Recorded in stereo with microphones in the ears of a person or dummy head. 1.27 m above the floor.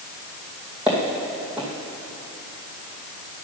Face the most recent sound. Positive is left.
turn(degrees=-5)  # may be behind; listen again after turning